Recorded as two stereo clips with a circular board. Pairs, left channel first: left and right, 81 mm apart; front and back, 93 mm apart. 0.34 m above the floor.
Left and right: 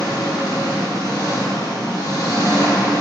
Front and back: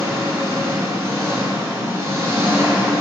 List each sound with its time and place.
0.0 s an engine running: 125° left, 2.5 m